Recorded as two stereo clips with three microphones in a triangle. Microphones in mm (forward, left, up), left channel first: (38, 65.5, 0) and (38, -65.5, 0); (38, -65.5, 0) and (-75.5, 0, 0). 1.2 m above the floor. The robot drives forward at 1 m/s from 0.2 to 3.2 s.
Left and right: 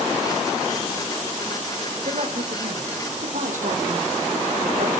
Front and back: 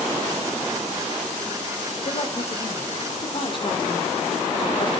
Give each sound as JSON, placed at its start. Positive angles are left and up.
{"t": 2.0, "sound": "a man speaking", "azimuth_deg": -65, "distance_m": 4.5}